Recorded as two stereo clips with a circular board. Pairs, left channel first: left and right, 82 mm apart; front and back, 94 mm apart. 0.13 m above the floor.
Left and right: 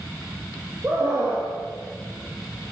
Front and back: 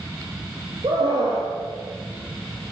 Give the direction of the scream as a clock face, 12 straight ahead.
5 o'clock.